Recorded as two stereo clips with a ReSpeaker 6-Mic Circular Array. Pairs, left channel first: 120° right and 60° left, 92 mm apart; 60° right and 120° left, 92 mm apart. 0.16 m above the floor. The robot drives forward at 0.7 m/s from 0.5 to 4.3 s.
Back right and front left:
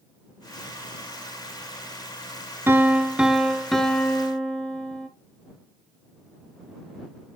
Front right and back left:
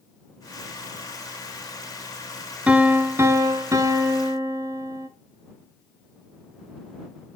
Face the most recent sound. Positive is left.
turn(degrees=165)